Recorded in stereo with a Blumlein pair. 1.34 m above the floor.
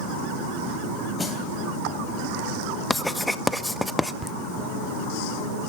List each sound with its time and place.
1.2 s a snare drum: 10° left, 3 m
2.9 s writing: 5° left, 0.6 m
4.2 s laughter: 5° right, 0.9 m